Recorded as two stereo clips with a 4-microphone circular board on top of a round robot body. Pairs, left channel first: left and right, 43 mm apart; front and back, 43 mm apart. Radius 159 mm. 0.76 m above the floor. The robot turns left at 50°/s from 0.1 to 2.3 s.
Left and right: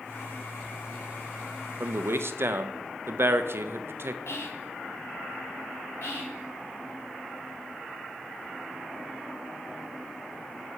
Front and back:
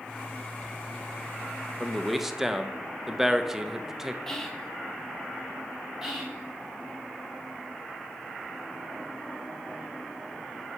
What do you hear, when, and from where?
1.8 s a man speaking: 75° right, 0.7 m; by 4.2 s 100° right, 0.7 m
4.3 s whispering: 80° left, 1.5 m
6.0 s whispering: 95° left, 3 m